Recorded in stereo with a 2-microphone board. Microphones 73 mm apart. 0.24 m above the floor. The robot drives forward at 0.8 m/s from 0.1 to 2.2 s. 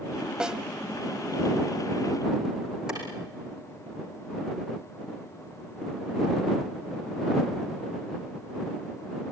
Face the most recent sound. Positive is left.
turn(degrees=-10)  # may be behind; listen again after turning